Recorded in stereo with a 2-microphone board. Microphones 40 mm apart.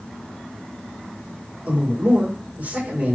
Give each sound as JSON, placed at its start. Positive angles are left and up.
{"t": 1.7, "sound": "a man speaking", "side_deg": -45, "distance_m": 2.5}